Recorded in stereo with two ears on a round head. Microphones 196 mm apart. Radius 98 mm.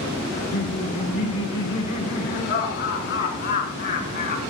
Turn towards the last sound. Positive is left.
turn(degrees=45)  # may be behind; listen again after turning